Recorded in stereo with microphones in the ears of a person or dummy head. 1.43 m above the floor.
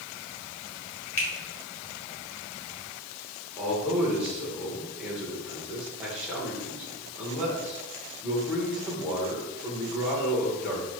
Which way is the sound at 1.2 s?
5° left (ahead or behind).